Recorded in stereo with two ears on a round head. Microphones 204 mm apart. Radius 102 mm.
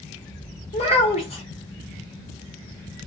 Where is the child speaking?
25° left (ahead or behind), 1.0 m.